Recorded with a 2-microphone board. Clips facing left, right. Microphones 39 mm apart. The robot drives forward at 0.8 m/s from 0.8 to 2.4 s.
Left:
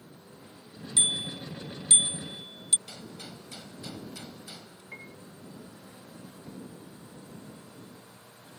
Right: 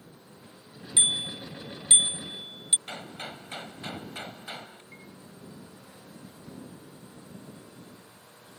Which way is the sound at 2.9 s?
40° right (ahead or behind).